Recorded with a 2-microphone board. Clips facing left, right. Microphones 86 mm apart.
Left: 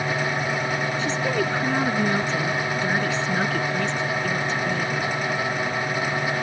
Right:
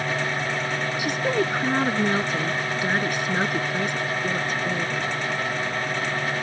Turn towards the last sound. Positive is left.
turn(degrees=-10)  # may be behind; listen again after turning